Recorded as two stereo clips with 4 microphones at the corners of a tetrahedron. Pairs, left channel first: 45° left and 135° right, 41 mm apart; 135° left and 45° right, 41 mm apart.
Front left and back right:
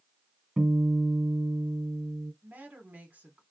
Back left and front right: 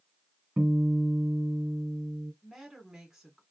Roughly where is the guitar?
Right.